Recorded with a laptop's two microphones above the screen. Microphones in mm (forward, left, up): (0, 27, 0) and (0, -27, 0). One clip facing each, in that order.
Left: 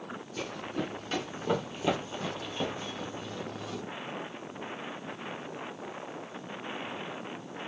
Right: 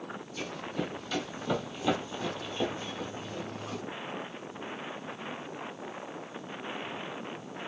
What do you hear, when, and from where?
0.4 s running footsteps: 50° left (ahead or behind), 1.6 m; by 3.8 s 30° right (ahead or behind), 1.2 m